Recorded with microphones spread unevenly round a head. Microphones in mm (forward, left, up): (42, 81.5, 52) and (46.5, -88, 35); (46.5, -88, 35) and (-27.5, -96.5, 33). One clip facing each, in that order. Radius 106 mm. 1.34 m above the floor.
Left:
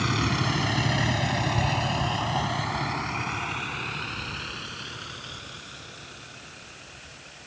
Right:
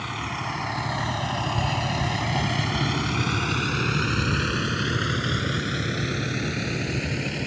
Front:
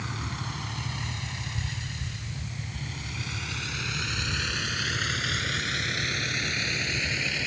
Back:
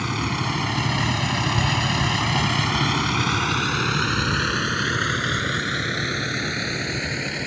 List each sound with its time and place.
0.0 s a vehicle: 145° left; by 7.5 s 115° right